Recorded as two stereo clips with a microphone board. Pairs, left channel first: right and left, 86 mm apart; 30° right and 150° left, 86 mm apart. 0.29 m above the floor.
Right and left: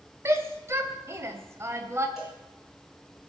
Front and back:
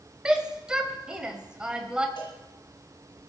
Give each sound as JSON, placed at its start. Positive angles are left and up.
{"t": 0.2, "sound": "a shout", "azimuth_deg": 80, "distance_m": 1.8}
{"t": 2.2, "sound": "a cowbell", "azimuth_deg": 5, "distance_m": 5.5}